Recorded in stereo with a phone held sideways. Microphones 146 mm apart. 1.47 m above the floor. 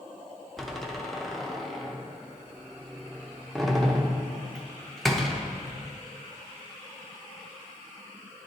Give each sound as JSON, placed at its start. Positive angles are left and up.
{"t": 0.6, "sound": "a door slam", "side_deg": 0, "distance_m": 0.7}